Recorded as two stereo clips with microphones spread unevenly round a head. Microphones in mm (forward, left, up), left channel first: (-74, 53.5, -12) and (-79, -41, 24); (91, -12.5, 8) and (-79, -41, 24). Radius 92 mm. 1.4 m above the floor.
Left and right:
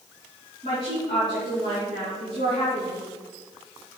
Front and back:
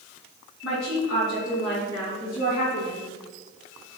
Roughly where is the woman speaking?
Ahead left.